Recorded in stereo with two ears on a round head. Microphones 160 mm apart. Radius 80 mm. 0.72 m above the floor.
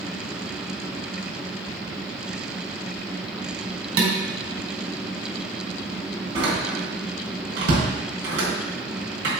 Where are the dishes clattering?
90° right, 3.5 m.